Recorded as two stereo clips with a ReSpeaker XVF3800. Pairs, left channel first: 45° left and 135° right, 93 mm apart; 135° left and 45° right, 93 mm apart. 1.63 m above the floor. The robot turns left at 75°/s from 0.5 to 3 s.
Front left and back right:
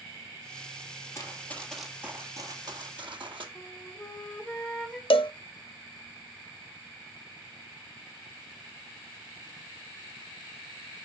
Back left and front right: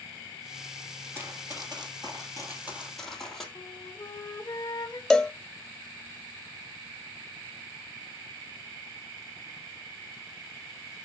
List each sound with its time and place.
1.1 s running footsteps: 10° left, 2.5 m; by 3.5 s 140° right, 3.5 m
3.5 s a flute: 125° left, 1.1 m
5.1 s a cowbell: 55° left, 0.5 m